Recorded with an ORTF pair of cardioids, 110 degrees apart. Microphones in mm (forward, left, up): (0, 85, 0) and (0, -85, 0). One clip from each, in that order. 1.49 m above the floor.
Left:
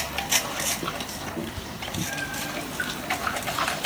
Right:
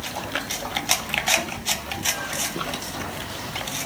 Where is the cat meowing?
25° left, 9.5 m; by 2.5 s 30° left, 8.5 m.